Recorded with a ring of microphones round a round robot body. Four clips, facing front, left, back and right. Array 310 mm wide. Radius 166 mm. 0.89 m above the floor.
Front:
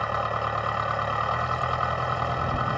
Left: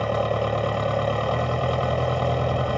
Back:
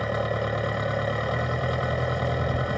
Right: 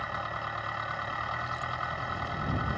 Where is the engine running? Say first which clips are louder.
Left 12 dB, even; 120° left.